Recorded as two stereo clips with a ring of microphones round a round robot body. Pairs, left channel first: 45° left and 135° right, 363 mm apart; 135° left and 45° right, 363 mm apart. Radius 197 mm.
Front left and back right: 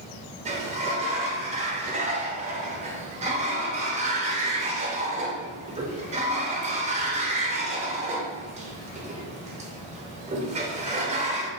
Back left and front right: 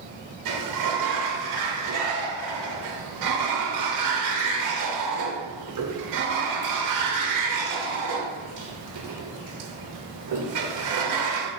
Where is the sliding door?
65° right, 0.8 m.